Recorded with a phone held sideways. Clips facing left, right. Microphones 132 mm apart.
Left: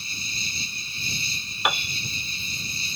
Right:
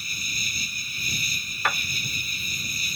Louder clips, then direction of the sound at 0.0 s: Even; 30° left (ahead or behind).